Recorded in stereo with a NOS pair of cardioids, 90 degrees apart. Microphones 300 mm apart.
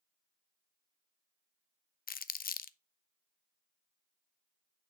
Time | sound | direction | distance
2.1 | crumpling | 30° left | 0.5 m